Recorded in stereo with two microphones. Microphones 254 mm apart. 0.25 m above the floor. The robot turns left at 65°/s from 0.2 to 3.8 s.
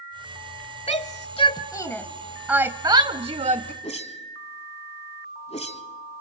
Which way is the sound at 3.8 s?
25° left (ahead or behind).